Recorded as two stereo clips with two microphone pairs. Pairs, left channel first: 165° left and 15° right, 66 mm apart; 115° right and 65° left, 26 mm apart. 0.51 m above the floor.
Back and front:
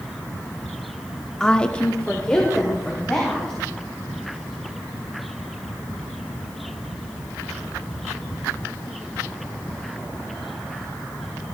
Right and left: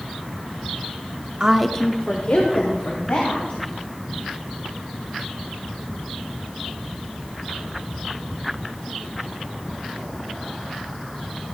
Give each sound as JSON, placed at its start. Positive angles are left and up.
{"t": 1.4, "sound": "a woman speaking", "azimuth_deg": 85, "distance_m": 0.7}